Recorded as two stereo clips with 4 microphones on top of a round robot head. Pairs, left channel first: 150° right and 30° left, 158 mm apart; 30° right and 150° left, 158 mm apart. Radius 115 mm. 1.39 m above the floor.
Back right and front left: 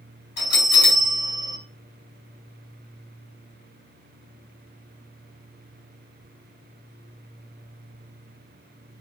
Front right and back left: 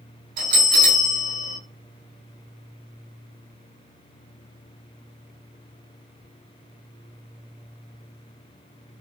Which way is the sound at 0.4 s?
170° right.